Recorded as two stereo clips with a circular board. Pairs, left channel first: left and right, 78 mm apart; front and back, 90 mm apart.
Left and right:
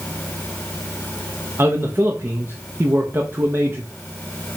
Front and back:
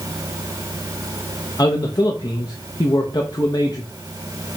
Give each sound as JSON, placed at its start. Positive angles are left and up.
{"t": 1.6, "sound": "a man speaking", "azimuth_deg": -35, "distance_m": 0.6}